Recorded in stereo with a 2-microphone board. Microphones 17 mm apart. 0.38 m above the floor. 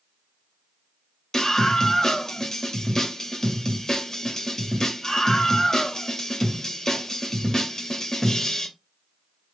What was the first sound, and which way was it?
A scream, 35° left (ahead or behind).